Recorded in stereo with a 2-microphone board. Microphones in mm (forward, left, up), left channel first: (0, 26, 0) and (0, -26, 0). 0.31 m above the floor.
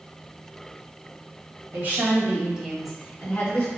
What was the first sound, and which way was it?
A woman speaking, 50° right (ahead or behind).